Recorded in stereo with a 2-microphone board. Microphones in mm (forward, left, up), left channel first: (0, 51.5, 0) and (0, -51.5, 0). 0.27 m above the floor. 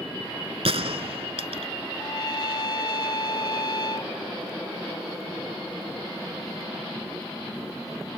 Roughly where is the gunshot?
Right.